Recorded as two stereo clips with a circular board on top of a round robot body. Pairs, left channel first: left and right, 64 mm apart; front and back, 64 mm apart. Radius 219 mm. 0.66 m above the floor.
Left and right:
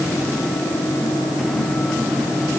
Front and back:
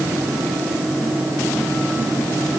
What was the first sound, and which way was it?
Only background noise.